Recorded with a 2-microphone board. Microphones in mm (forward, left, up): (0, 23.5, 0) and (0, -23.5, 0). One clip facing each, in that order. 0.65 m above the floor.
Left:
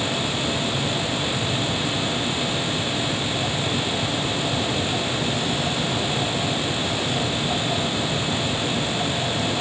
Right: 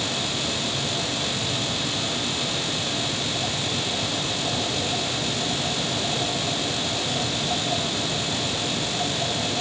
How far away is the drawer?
I don't hear a drawer.